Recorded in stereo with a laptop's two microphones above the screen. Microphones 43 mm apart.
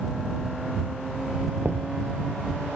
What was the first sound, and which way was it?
Knocking, 70° right (ahead or behind).